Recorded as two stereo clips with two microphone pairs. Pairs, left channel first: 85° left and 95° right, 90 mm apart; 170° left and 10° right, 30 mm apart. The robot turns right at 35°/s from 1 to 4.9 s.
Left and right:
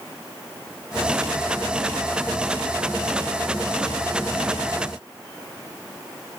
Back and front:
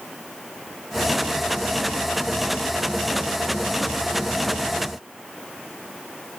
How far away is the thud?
No thud in this recording.